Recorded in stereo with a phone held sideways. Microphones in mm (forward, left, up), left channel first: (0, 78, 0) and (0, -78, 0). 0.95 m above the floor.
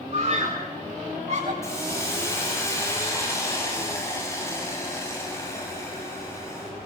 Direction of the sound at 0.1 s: 45° right (ahead or behind).